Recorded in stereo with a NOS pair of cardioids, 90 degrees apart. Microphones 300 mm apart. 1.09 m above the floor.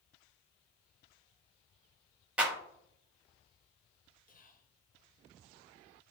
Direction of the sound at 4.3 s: 30° left.